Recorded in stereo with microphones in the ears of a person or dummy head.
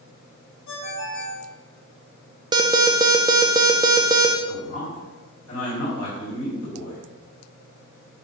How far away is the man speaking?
About 4.5 m.